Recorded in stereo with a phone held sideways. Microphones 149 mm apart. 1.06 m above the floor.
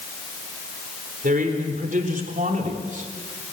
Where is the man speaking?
70° right (ahead or behind), 4 m; by 3.1 s 60° right (ahead or behind), 3 m.